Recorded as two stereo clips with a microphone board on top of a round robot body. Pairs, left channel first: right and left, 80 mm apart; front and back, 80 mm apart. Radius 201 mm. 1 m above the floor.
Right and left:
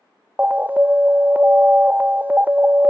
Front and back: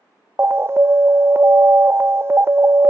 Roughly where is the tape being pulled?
No tape being pulled in this recording.